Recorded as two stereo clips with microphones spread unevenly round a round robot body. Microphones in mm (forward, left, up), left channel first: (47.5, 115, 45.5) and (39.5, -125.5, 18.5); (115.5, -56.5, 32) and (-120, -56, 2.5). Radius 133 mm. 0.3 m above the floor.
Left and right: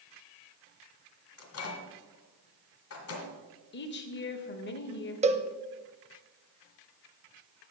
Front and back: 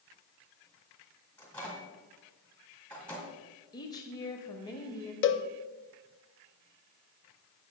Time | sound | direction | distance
1.4 | a microwave | 90° left | 1.9 m
3.7 | a woman speaking | 75° left | 1.1 m
5.2 | a cowbell | 35° right | 0.7 m